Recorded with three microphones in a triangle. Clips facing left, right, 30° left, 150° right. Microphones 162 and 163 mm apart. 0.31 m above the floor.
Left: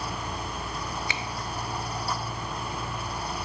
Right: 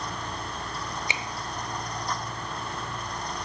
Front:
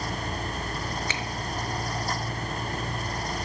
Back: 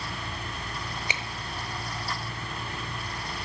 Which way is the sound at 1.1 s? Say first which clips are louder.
Even, front 3 dB; 105° right.